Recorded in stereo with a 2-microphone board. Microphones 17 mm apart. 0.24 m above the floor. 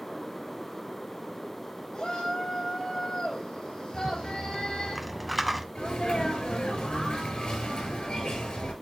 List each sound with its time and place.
1.9 s a shout: 45° left (ahead or behind), 5.5 m
3.9 s a rattle: centre (ahead or behind), 1.0 m
5.8 s a sneeze: 75° left (ahead or behind), 5.5 m